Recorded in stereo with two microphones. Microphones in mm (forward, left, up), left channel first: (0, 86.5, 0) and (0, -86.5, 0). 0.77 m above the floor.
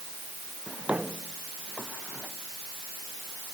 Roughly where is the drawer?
Centre.